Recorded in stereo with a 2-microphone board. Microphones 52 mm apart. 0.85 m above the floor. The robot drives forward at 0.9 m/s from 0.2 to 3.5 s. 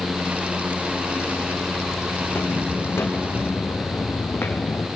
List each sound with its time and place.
2.2 s footsteps: 55° left (ahead or behind), 4.5 m; by 4.9 s 45° left (ahead or behind), 1.8 m